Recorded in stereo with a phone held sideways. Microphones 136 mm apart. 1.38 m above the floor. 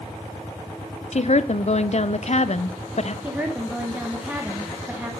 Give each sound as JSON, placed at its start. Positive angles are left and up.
{"t": 1.1, "sound": "a woman speaking", "side_deg": 55, "distance_m": 0.6}
{"t": 3.2, "sound": "a woman speaking", "side_deg": -10, "distance_m": 1.4}